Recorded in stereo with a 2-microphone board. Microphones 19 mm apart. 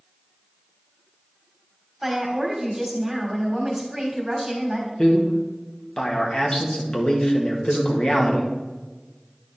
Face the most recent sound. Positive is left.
turn(degrees=65)  # may be behind; listen again after turning